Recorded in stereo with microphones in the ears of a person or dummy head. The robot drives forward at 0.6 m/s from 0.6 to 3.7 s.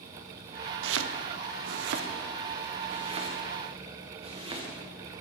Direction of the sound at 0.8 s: 75° right (ahead or behind).